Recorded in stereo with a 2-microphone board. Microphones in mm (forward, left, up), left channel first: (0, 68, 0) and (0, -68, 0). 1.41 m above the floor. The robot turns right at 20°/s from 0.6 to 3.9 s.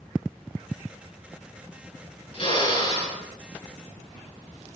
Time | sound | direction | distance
2.3 | a drill | 50° left (ahead or behind) | 6 m